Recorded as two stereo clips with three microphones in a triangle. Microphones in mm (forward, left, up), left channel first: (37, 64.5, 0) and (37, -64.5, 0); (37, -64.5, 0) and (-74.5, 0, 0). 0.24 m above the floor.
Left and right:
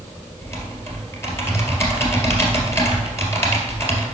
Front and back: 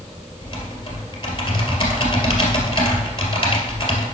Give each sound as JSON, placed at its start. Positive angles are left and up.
{"t": 0.4, "sound": "typing on a keyboard", "azimuth_deg": 20, "distance_m": 2.0}